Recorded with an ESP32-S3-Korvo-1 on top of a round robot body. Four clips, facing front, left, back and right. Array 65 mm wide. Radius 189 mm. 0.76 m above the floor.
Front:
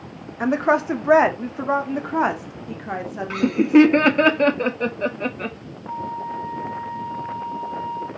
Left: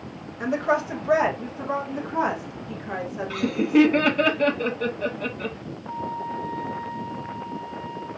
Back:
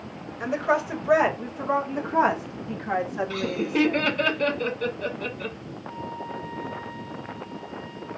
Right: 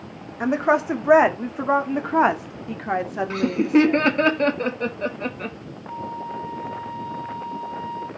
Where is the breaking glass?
I don't hear breaking glass.